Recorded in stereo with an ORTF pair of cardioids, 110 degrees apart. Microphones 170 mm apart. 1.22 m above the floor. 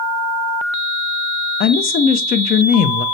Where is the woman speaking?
65° left, 0.6 m.